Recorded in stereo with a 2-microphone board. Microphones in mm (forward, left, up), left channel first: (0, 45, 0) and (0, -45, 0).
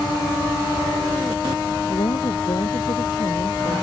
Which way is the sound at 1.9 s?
60° left (ahead or behind).